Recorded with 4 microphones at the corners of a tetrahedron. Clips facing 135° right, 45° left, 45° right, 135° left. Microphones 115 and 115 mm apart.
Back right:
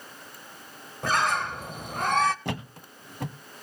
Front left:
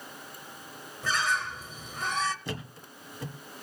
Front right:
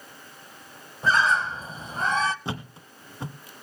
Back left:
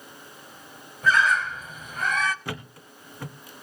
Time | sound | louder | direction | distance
1.0 | a bird | back right 4 dB, even | 105° right | 0.7 m
2.5 | a thud | back right 4 dB, front right 2 dB | 110° right | 1.4 m